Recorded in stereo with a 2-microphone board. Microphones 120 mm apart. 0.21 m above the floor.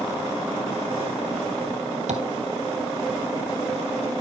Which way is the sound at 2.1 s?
85° right.